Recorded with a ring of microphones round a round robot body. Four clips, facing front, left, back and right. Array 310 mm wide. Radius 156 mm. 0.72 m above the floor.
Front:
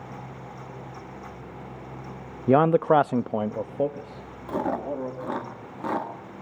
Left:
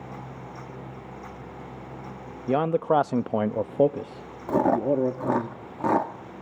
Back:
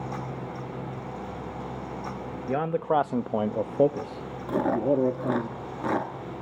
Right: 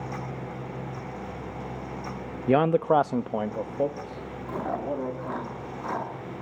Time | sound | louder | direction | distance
2.5 | a man speaking | right 2 dB, front 7 dB | 20° right | 0.6 m
4.5 | chewing | left 9 dB, back 4 dB | 105° left | 1.6 m